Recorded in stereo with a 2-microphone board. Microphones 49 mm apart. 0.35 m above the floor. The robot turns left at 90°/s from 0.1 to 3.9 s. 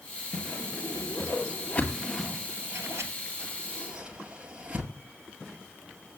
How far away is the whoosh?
About 2 m.